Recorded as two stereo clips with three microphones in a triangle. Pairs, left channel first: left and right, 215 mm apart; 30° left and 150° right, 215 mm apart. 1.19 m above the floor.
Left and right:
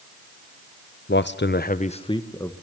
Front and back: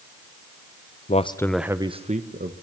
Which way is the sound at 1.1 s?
75° left.